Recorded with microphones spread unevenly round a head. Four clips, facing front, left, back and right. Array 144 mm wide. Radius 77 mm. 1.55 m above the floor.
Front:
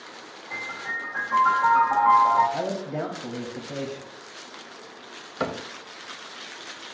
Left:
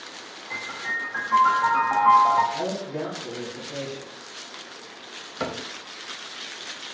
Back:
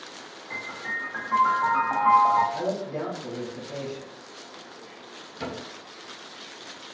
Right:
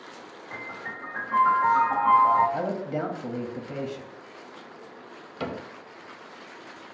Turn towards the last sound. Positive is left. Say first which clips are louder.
# left 2 dB, front 6 dB
turn(degrees=20)